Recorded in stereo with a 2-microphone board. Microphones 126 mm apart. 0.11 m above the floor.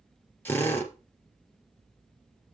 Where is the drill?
15° left (ahead or behind), 2.5 m.